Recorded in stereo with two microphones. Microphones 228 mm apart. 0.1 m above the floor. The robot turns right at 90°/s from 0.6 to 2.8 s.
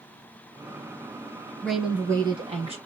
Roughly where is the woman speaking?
Centre.